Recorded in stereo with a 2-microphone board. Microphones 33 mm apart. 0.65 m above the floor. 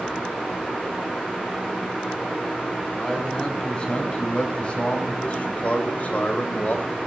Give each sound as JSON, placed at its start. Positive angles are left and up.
{"t": 2.9, "sound": "a man speaking", "side_deg": 25, "distance_m": 4.5}